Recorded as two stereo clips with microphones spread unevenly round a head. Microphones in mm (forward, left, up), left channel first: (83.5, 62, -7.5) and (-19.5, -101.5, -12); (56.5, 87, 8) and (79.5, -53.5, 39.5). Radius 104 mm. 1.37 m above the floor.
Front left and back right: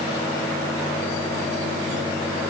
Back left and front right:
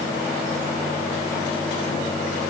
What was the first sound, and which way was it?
Only background noise.